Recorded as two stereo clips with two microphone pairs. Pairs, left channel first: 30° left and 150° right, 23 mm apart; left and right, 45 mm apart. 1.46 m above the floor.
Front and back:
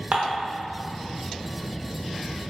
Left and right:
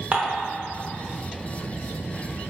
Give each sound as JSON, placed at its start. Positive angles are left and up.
{"t": 0.1, "sound": "dishes clattering", "azimuth_deg": -140, "distance_m": 0.6}